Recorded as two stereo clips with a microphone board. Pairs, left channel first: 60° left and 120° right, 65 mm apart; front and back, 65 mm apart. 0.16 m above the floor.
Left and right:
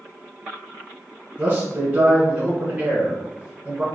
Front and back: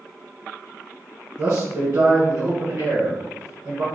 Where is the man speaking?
170° right, 2.0 m.